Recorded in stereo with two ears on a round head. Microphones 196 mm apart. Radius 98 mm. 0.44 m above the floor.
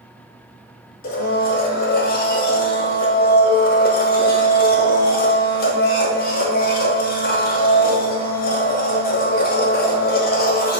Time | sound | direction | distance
1.0 | a blender | 40° left (ahead or behind) | 0.8 m